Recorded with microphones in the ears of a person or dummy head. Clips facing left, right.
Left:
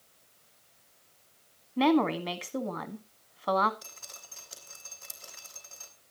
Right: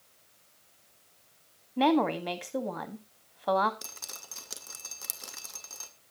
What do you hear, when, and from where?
1.8 s a woman speaking: centre (ahead or behind), 1.7 m
3.8 s dripping: 65° right (ahead or behind), 1.9 m